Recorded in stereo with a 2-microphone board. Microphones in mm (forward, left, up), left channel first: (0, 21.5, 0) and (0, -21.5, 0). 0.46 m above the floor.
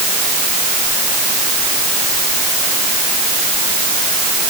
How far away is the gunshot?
I don't hear a gunshot.